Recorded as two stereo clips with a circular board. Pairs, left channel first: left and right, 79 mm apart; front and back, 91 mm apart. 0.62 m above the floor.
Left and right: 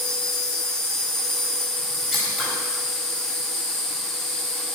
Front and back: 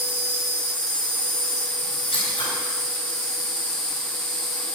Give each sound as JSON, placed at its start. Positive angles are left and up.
{"t": 0.0, "sound": "an insect", "azimuth_deg": 5, "distance_m": 3.0}
{"t": 2.1, "sound": "scissors", "azimuth_deg": 5, "distance_m": 4.0}